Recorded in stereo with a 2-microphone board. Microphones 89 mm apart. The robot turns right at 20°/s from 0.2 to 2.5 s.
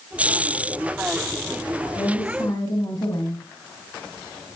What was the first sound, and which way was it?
A woman speaking, 30° left (ahead or behind).